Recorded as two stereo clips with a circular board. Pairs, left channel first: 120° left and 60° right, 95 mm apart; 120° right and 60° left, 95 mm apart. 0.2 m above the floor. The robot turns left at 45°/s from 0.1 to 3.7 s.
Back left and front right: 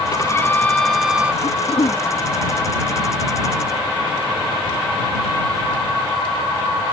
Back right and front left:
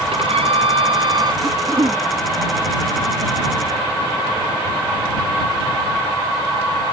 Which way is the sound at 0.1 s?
70° left.